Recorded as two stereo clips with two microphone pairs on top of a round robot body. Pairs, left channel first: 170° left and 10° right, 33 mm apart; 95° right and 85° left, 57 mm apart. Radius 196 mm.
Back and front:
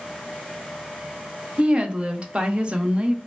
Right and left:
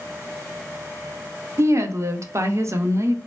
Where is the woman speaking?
50° left, 0.8 m.